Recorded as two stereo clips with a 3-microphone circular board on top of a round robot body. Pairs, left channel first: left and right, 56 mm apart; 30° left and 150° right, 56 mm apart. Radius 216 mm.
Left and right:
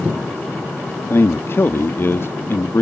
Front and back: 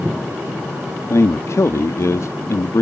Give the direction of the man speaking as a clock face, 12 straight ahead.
10 o'clock.